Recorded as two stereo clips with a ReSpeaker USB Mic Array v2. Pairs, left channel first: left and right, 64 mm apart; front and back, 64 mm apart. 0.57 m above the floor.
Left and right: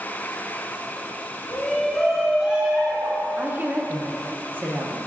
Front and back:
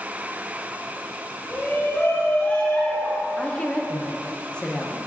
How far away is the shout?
About 1.2 m.